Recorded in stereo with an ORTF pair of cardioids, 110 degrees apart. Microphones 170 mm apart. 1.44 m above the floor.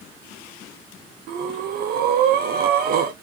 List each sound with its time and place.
1.3 s breathing: 65° right, 0.6 m